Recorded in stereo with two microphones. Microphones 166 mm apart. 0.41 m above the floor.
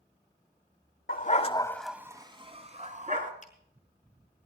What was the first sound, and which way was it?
A dog barking, 60° left (ahead or behind).